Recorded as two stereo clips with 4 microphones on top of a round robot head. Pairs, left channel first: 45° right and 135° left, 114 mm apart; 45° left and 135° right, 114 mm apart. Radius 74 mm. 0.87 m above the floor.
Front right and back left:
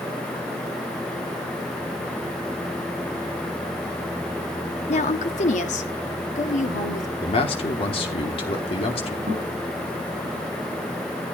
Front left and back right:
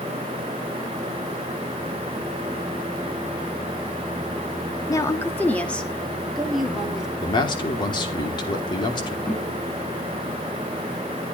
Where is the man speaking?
5° right, 2.5 m.